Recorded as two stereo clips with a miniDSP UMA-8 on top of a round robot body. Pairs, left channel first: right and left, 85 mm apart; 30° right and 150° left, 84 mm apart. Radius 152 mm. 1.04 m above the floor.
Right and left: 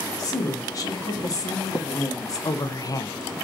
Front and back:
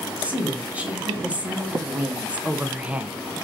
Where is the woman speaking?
135° right, 3 m.